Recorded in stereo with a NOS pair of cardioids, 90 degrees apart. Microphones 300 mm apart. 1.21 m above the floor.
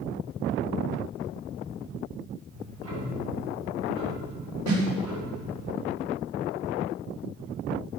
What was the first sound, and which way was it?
Ticking, 55° right.